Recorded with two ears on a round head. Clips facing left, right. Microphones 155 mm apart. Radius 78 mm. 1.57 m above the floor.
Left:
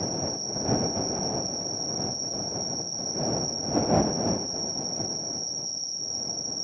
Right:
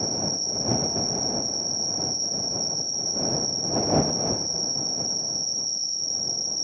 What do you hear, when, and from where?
0.0 s an insect: 35° right (ahead or behind)